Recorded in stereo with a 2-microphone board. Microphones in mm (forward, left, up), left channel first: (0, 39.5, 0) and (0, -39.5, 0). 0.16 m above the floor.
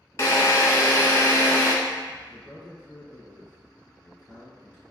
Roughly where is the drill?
Left.